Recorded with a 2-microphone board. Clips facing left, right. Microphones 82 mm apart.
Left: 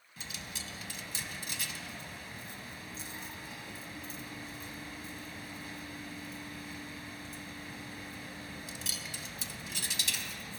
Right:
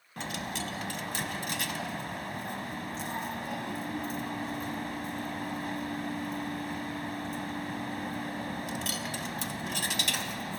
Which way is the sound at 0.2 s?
65° right (ahead or behind).